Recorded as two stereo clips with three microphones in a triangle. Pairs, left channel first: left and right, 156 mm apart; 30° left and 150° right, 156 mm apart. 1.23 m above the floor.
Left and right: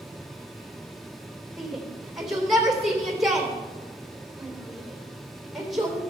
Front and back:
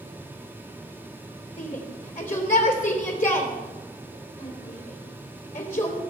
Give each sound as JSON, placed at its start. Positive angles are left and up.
{"t": 1.6, "sound": "a shout", "azimuth_deg": 0, "distance_m": 3.5}